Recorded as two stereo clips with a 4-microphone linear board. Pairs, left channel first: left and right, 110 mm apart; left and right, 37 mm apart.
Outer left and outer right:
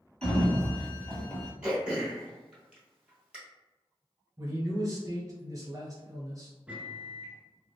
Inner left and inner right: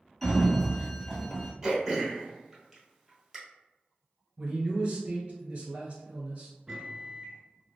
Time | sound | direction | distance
0.2 | a sliding door | 10° left (ahead or behind) | 0.8 m
1.6 | throat clearing | 10° right (ahead or behind) | 1.4 m
4.4 | a man speaking | 35° right (ahead or behind) | 1.3 m
6.7 | a microwave | 10° right (ahead or behind) | 0.9 m